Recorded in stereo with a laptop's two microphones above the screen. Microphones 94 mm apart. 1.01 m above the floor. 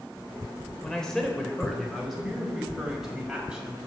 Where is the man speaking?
10° left (ahead or behind), 3.5 m; by 3.8 s 10° right (ahead or behind), 5.5 m.